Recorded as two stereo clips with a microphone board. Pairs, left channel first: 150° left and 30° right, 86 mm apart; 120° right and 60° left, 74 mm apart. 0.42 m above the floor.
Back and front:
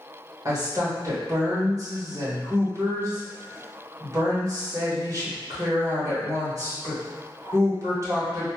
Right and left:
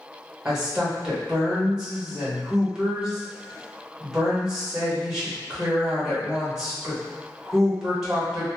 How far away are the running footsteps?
I don't hear running footsteps.